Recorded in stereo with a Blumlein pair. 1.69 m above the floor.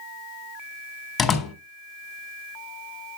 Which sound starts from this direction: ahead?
A door slam, at 1.2 s.